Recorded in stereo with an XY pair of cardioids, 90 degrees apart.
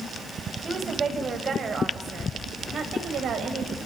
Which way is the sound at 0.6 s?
35° right.